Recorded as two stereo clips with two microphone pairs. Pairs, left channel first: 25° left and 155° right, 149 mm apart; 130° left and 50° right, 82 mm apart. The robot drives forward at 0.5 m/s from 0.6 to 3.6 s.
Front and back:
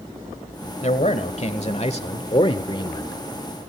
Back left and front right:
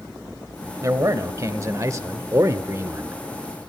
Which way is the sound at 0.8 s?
10° right.